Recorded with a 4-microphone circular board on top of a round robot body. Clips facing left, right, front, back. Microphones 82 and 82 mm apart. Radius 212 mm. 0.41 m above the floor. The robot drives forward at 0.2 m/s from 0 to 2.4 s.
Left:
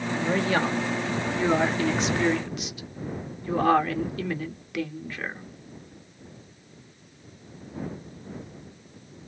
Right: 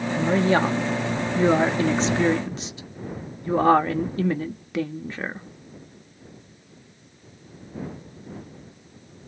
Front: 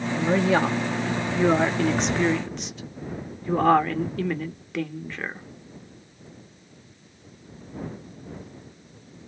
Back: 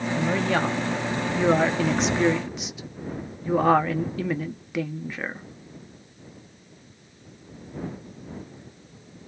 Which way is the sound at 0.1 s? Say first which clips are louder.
Right 5 dB, front 3 dB; 65° right.